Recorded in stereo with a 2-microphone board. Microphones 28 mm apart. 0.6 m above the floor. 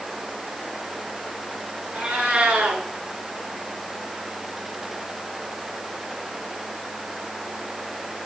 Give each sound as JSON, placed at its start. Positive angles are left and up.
{"t": 1.9, "sound": "a cat meowing", "side_deg": -75, "distance_m": 5.5}